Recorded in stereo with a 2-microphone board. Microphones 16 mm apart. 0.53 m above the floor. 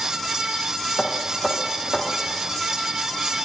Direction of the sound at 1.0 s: 35° left (ahead or behind).